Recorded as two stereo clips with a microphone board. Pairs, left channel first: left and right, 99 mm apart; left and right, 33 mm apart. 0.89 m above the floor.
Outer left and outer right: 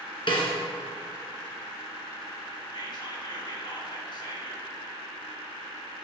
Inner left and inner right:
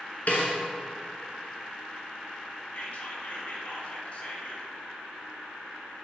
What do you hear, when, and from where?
0.3 s a snare drum: 55° left (ahead or behind), 1.8 m
2.7 s whispering: 45° left (ahead or behind), 1.4 m